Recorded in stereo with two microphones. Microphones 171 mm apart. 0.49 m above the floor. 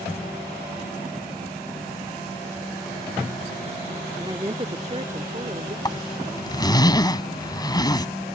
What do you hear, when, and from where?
4.2 s a woman speaking: 20° right (ahead or behind); by 5.8 s 50° right (ahead or behind)
5.8 s a zipper: 25° left (ahead or behind)